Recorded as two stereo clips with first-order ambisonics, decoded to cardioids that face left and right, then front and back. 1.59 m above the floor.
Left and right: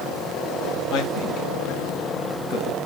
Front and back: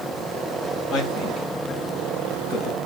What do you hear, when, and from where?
0.9 s a man speaking: 55° left, 2 m